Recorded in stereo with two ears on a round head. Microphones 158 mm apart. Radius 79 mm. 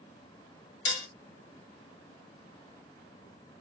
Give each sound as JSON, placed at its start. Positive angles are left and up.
{"t": 0.8, "sound": "dishes clattering", "side_deg": 75, "distance_m": 1.1}